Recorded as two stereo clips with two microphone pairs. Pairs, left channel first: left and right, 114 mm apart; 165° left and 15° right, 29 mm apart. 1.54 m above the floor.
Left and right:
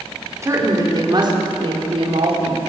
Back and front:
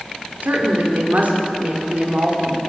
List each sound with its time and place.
0.4 s a woman speaking: 30° right, 4 m; by 2.6 s 65° right, 4 m